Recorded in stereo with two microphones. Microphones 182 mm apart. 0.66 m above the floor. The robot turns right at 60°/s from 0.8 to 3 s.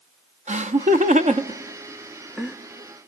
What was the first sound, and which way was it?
Laughter, 40° right (ahead or behind).